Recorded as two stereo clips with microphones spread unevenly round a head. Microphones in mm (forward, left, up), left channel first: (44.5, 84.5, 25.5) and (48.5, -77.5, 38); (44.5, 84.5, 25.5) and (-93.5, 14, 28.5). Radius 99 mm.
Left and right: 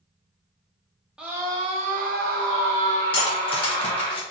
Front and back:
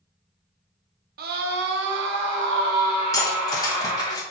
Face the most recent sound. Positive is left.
turn(degrees=70)